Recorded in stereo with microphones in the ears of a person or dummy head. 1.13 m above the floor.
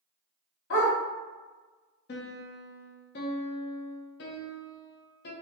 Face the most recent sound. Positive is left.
turn(degrees=55)  # may be behind; listen again after turning